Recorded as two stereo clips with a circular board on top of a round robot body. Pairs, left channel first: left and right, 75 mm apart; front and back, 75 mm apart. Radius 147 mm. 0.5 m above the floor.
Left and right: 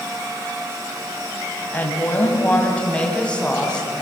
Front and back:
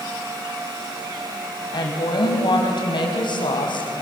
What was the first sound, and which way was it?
A woman speaking, 25° left.